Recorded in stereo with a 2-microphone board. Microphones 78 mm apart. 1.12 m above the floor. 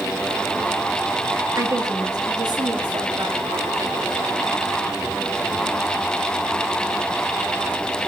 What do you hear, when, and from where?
1.6 s a woman speaking: 45° right (ahead or behind), 2 m; by 3.4 s 80° right, 3 m